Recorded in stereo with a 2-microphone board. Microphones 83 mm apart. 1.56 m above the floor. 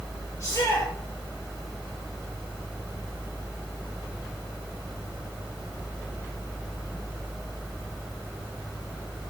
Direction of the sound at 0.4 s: 45° left (ahead or behind).